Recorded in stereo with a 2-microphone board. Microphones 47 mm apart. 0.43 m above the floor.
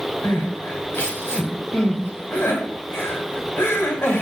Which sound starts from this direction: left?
Crying, at 0.2 s.